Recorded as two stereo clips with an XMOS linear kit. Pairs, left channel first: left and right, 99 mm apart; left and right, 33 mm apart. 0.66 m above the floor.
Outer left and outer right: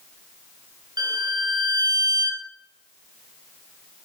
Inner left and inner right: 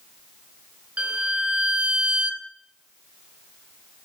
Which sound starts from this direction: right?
A violin, at 1.0 s.